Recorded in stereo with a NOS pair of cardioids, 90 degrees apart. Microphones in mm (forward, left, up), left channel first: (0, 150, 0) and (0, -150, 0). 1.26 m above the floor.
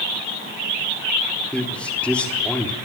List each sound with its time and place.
1.5 s a man speaking: 5° left, 3.5 m